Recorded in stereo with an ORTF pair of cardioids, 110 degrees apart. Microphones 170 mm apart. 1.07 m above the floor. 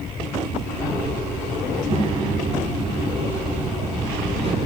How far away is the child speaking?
About 5 m.